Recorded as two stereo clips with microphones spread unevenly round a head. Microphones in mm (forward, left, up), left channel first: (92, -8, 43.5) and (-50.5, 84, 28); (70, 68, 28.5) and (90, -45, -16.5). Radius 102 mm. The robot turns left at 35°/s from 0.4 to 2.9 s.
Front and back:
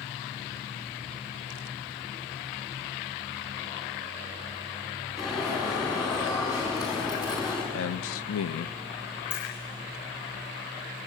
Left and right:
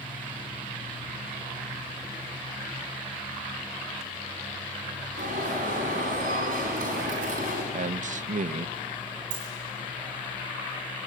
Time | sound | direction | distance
5.2 | an alarm | 105° right | 4 m
7.7 | a man speaking | 50° right | 0.7 m
9.3 | a dropped coin | 80° right | 10 m